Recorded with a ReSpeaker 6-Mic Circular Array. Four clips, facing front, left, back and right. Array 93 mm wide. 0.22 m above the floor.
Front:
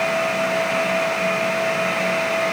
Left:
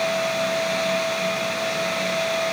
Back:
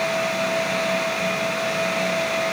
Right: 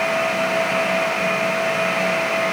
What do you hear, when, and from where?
Only background noise.